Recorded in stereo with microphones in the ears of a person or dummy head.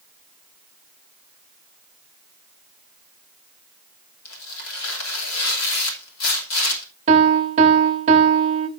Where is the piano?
25° right (ahead or behind), 1.0 m.